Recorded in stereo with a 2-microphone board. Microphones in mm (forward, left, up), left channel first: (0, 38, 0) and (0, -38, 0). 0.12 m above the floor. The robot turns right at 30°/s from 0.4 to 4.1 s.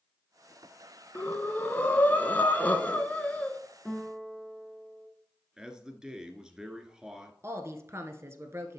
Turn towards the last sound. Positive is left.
turn(degrees=-40)  # may be behind; listen again after turning